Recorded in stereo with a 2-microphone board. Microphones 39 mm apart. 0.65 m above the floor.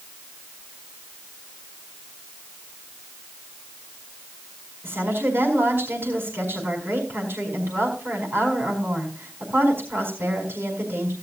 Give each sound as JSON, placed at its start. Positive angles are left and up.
{"t": 4.8, "sound": "a woman speaking", "side_deg": -70, "distance_m": 4.5}